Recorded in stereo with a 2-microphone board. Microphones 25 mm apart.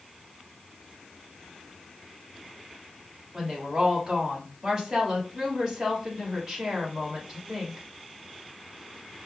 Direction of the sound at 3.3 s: 25° right (ahead or behind).